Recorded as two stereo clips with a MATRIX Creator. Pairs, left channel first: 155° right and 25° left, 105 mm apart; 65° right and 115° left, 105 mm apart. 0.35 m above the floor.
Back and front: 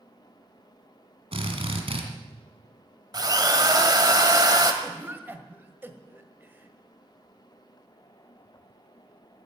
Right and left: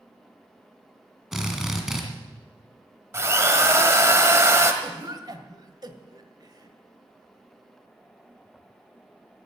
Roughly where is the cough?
Left.